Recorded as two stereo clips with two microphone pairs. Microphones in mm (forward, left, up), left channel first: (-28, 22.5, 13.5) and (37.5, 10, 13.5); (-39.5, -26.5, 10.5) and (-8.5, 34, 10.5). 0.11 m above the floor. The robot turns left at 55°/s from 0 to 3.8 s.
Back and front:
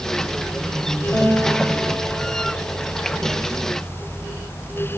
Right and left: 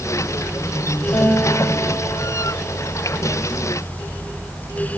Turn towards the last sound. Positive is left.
turn(degrees=100)